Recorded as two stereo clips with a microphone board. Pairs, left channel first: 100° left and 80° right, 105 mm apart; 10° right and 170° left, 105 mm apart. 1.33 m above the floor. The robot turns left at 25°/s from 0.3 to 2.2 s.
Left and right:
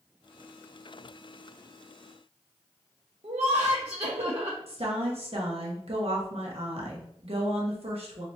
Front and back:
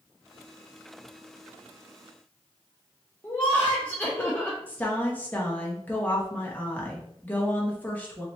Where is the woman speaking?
85° right, 1.2 m.